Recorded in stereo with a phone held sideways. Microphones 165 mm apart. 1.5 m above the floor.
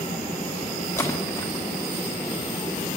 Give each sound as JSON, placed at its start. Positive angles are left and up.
{"t": 1.0, "sound": "a splash", "side_deg": 15, "distance_m": 1.4}